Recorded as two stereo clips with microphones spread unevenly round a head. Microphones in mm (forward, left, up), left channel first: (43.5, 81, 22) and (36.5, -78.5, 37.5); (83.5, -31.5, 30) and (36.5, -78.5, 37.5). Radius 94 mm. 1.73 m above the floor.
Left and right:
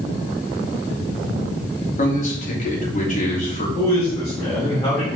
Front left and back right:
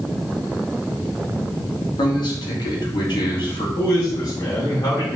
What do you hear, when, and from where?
2.0 s a man speaking: 45° left, 3 m
3.8 s a man speaking: 20° left, 4.5 m